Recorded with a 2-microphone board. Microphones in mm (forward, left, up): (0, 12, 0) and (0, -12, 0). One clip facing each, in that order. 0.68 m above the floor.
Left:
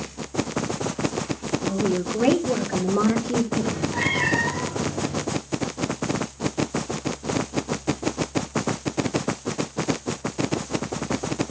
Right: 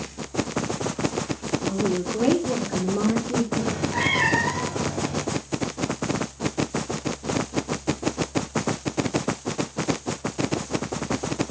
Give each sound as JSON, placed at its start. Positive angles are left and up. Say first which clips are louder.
{"t": 1.6, "sound": "a woman speaking", "louder": "left 1 dB", "side_deg": -10, "distance_m": 1.5}
{"t": 3.6, "sound": "a cat meowing", "louder": "even", "side_deg": -35, "distance_m": 2.5}